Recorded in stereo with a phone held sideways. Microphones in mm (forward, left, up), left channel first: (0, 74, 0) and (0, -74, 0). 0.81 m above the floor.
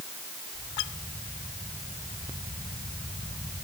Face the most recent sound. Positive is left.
No sound to turn to.